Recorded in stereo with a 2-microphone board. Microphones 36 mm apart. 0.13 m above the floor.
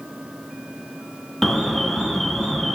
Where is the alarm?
10° left (ahead or behind), 0.8 m.